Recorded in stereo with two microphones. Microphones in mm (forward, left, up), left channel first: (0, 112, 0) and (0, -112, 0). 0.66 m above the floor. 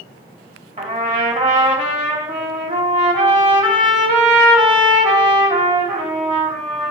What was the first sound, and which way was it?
A trumpet, 35° right (ahead or behind).